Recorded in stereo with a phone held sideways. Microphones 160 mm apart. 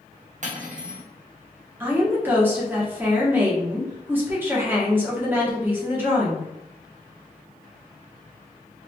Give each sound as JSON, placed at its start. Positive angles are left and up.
{"t": 0.4, "sound": "cutlery clinking", "side_deg": -50, "distance_m": 0.6}
{"t": 1.8, "sound": "a woman speaking", "side_deg": -15, "distance_m": 0.8}